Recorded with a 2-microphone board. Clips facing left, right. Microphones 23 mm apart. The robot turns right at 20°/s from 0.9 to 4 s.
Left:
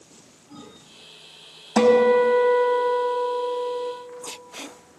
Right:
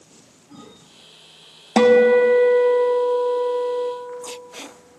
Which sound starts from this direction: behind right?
A guitar, at 1.8 s.